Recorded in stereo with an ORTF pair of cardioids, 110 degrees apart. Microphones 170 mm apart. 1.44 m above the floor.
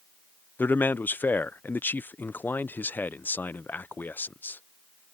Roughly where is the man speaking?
Ahead.